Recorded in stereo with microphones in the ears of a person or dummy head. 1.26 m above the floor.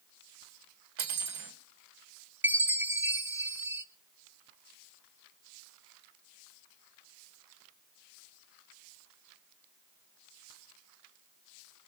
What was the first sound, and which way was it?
Cutlery clinking, 80° right.